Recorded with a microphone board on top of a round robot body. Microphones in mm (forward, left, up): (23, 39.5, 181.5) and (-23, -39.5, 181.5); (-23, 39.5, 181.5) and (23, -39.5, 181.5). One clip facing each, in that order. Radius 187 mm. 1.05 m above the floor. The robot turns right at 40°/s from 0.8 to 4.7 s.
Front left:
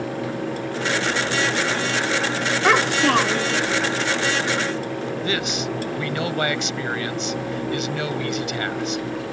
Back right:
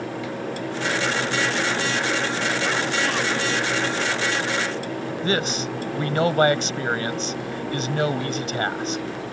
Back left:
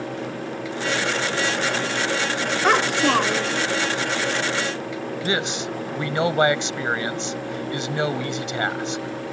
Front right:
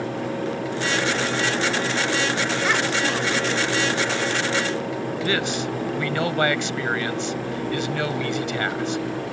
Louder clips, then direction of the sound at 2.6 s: Front left 6 dB, back left 7 dB; 75° left.